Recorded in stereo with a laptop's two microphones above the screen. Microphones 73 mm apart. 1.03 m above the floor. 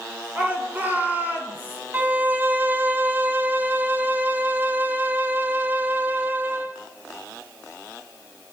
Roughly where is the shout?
Right.